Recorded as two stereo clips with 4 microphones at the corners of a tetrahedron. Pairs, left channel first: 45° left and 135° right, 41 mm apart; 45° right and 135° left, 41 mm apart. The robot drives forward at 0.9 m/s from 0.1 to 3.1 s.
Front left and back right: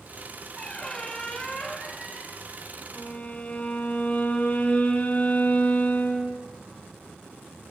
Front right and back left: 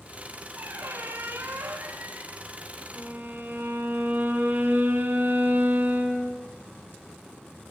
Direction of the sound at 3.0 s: 100° left.